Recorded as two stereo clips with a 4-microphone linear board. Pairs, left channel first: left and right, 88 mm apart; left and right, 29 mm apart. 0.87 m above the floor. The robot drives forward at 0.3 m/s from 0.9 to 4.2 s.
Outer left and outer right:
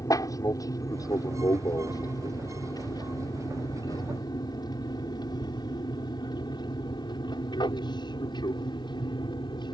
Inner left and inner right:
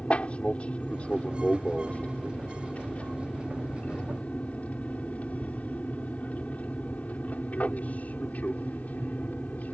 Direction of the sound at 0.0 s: 40° left (ahead or behind).